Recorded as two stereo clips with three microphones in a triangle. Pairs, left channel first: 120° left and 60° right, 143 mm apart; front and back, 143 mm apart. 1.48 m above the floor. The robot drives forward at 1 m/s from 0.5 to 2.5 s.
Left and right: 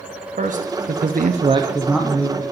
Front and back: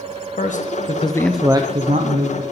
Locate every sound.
0.4 s a man speaking: 30° right, 1.0 m; by 2.4 s 155° right, 1.2 m